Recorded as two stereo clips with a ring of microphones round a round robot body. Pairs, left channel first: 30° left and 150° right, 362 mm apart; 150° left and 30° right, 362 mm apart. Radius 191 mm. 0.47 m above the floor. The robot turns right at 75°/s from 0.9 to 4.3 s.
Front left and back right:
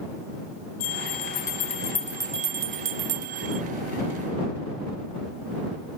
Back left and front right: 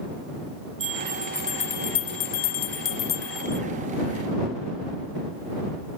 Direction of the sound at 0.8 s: 35° left.